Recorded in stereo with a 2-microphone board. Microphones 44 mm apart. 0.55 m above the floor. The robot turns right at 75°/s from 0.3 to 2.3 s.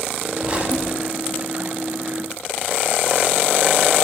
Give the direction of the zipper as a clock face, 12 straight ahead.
5 o'clock.